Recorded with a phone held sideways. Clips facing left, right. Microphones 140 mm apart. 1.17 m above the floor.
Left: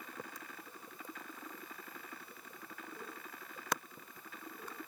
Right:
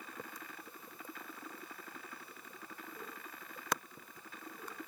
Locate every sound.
Only background noise.